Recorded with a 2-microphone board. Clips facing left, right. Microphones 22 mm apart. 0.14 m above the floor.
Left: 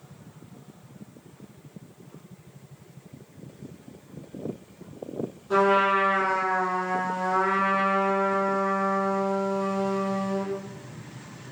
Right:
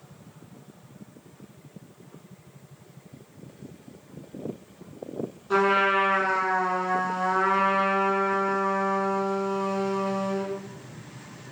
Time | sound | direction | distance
5.5 | a trumpet | 25° right (ahead or behind) | 0.9 m